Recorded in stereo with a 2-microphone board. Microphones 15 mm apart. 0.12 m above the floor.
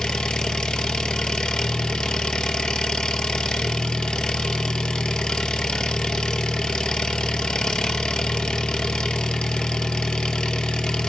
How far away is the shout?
No shout in this recording.